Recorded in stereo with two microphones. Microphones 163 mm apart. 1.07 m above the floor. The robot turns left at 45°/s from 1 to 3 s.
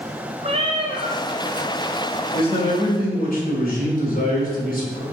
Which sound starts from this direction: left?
A man speaking, at 2.3 s.